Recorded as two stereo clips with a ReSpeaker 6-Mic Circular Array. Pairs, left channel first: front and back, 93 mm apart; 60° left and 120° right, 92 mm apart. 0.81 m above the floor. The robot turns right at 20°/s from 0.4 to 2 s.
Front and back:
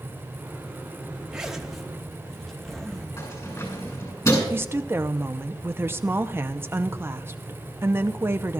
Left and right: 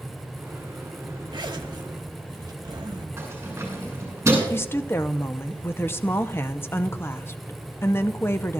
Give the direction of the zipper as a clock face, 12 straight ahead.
3 o'clock.